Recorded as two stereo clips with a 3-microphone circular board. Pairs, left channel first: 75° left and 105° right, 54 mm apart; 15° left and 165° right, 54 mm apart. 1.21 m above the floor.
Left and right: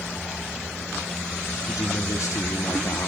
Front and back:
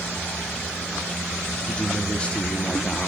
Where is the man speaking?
85° left, 3 m.